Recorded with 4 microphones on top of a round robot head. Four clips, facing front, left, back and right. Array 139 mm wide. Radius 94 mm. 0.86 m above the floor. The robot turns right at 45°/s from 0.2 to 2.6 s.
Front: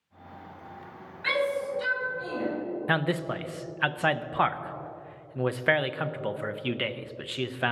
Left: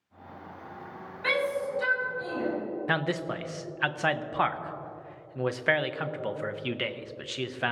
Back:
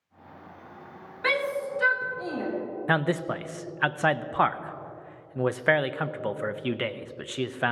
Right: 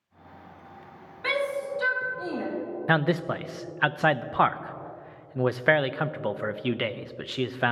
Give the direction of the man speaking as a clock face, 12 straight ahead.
4 o'clock.